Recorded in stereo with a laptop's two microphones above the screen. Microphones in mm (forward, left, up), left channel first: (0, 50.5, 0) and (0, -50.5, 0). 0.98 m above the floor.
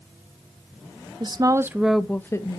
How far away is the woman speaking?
About 0.8 m.